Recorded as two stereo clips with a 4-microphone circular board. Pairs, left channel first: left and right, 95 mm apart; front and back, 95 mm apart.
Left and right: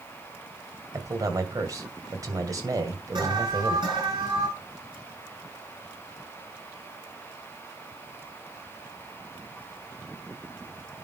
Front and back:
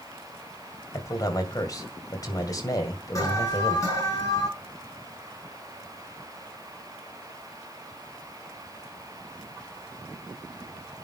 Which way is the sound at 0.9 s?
45° right.